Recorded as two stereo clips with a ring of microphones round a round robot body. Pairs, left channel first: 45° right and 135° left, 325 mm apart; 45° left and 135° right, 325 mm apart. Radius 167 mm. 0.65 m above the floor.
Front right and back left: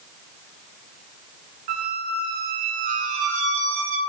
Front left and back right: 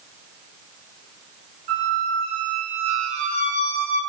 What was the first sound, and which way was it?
A squeak, 155° left.